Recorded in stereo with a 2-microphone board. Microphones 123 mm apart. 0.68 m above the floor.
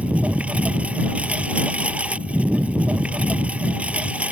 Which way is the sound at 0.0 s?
10° right (ahead or behind).